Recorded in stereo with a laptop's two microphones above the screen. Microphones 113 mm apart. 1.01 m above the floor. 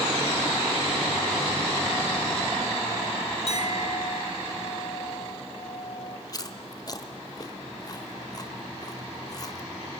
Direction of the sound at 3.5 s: 60° left (ahead or behind).